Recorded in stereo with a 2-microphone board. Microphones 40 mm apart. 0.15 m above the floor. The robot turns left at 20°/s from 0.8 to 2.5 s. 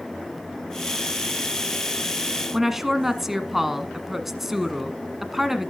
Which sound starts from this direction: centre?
A woman speaking, at 2.5 s.